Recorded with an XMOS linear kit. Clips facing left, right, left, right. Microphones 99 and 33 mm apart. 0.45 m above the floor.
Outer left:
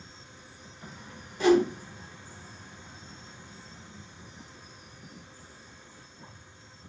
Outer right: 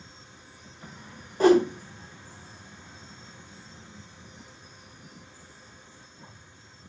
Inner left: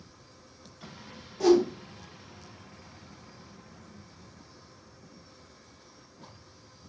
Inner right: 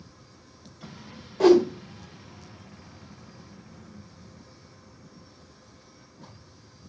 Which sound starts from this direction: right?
A whoosh, at 1.4 s.